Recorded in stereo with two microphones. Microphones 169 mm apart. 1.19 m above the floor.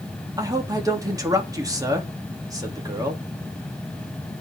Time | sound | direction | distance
0.4 | a man speaking | 20° right (ahead or behind) | 3 m